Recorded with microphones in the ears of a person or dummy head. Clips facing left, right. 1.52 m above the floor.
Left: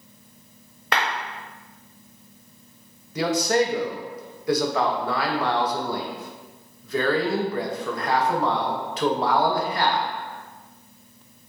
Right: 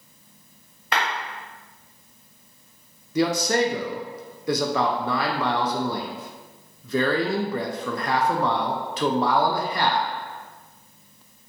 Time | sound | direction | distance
0.9 | a clap | 40° left (ahead or behind) | 0.5 m
3.1 | a man speaking | 80° right | 0.6 m